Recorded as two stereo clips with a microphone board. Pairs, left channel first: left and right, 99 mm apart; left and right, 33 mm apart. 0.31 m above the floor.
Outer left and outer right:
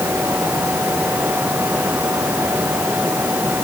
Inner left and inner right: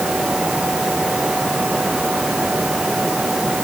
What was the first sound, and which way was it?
Only background noise.